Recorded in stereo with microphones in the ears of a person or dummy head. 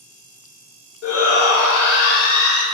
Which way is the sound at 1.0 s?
85° left.